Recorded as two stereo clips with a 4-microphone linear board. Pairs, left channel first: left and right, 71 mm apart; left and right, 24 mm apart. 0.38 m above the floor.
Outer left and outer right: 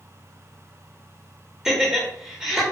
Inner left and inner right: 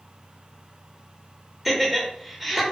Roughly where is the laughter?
Centre.